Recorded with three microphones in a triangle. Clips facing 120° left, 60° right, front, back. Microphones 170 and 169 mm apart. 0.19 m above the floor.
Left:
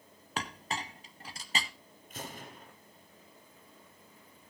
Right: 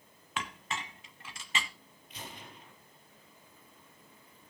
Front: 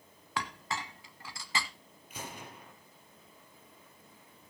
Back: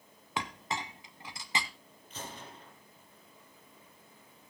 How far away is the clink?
About 0.8 m.